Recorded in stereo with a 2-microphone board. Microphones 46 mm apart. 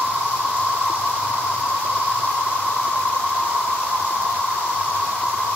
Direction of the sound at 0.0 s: 70° left (ahead or behind).